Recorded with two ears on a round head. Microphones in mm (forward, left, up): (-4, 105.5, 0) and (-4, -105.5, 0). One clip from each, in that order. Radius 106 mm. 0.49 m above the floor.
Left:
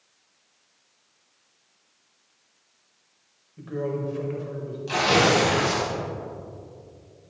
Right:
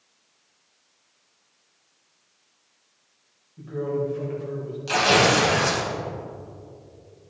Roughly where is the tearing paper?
Right.